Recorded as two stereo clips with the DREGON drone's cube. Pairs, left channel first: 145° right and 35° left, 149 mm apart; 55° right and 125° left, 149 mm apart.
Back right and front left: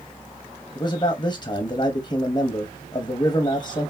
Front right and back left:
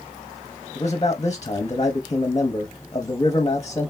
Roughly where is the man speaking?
Right.